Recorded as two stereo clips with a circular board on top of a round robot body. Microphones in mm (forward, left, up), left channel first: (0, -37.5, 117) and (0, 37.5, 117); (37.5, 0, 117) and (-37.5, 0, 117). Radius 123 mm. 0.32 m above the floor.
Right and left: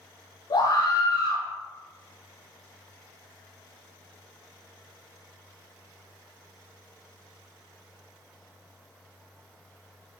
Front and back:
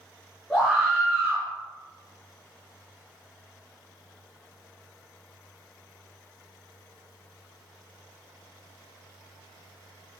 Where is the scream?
90° right, 7.5 m.